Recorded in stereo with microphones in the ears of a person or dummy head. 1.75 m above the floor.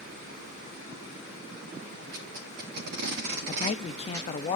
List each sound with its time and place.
2.1 s tape being pulled: 60° right (ahead or behind), 2.5 m
3.5 s a man speaking: 35° left (ahead or behind), 0.7 m